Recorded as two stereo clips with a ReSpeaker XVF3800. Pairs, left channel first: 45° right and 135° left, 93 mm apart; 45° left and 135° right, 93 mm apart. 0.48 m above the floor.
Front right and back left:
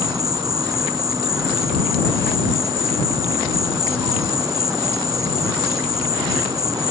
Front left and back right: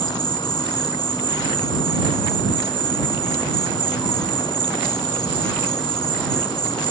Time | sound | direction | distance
0.0 | an insect | 85° left | ?